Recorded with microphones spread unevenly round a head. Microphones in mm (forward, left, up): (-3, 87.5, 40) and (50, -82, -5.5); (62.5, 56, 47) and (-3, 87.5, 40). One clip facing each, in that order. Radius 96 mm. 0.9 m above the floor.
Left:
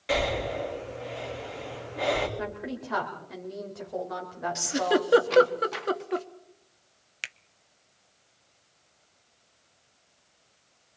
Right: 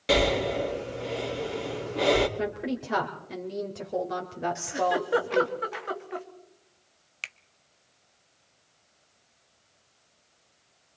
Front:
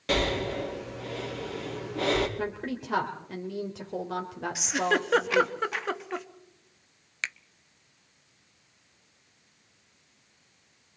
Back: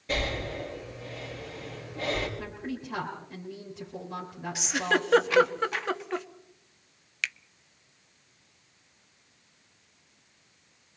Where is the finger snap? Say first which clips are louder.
Left 1 dB, back 1 dB; 20° left, 0.6 m.